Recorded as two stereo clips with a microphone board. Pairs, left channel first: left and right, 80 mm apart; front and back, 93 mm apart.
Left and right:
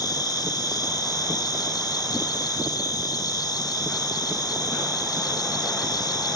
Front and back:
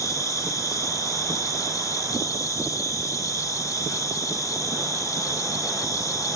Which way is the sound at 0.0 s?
55° left.